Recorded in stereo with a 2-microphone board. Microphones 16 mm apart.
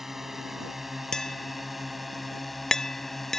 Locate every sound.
0.0 s a drone: 20° right (ahead or behind); by 3.4 s 15° left (ahead or behind)
1.1 s tapping: 35° left (ahead or behind)